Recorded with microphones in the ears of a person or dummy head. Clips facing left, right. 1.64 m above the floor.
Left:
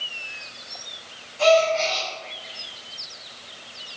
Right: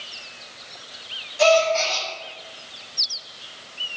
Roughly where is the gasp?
Right.